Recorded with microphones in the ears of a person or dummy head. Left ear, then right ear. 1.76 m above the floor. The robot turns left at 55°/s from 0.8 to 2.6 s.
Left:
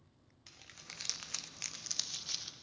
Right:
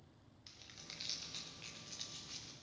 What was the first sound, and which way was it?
Crumpling, 30° left (ahead or behind).